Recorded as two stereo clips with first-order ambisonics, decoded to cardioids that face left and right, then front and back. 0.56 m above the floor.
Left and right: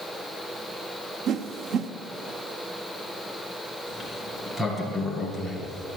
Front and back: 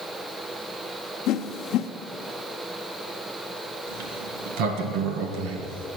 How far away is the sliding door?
About 1.7 m.